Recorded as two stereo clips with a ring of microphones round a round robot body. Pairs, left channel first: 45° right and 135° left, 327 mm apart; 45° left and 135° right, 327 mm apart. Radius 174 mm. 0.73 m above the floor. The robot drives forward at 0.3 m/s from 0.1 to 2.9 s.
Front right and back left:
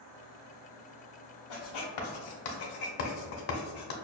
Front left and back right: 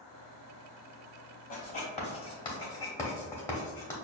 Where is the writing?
20° right, 1.0 m; by 3.9 s 35° right, 0.7 m.